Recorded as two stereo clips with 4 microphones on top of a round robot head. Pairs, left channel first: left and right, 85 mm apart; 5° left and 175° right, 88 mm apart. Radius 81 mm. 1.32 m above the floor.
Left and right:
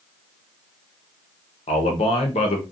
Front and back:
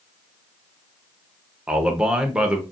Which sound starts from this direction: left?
A man speaking, at 1.7 s.